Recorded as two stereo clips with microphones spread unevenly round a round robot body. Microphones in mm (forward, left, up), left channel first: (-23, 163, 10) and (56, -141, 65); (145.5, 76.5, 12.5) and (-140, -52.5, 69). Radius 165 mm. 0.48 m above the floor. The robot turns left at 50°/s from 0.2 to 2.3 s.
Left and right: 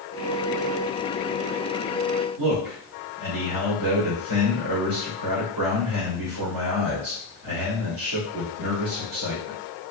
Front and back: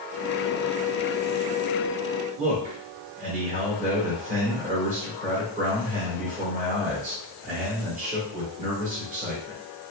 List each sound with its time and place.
2.4 s a man speaking: 85° right, 2.0 m